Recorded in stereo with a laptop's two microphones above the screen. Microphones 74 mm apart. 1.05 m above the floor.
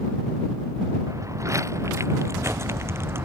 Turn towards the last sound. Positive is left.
turn(degrees=-30)  # may be behind; listen again after turning